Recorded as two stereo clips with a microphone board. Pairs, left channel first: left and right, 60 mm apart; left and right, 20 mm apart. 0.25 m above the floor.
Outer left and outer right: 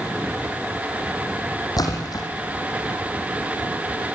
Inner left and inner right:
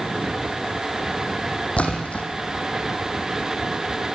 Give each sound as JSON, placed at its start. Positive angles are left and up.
{"t": 1.8, "sound": "a splash", "side_deg": 80, "distance_m": 4.5}